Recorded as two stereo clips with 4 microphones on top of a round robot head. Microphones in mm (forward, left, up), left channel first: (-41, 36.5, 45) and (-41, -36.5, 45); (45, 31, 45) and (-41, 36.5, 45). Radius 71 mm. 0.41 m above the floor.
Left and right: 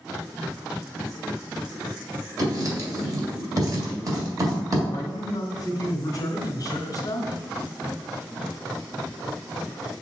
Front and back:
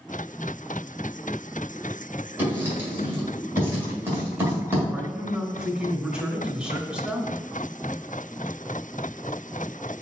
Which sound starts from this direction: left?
A man speaking, at 4.9 s.